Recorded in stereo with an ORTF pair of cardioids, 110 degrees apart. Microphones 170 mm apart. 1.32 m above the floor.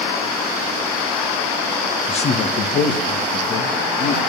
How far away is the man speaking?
About 1.7 m.